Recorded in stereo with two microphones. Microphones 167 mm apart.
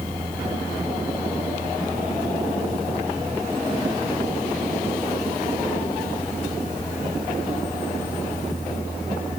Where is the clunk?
No clunk in this recording.